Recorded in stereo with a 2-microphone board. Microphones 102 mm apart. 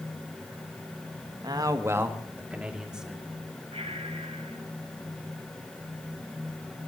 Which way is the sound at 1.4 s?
45° right (ahead or behind).